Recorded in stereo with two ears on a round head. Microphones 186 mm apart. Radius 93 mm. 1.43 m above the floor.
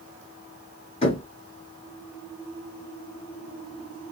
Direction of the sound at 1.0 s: 30° left (ahead or behind).